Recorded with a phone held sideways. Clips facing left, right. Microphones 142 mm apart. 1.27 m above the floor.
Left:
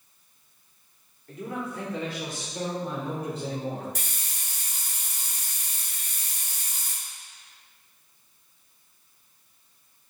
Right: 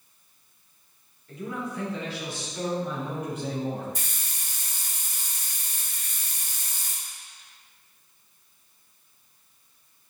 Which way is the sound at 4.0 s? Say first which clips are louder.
Left 1 dB; 80° left.